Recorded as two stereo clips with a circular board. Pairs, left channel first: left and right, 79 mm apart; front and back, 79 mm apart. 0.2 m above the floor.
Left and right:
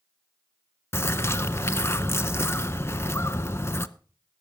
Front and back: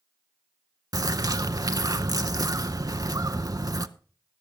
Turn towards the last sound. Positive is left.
turn(degrees=145)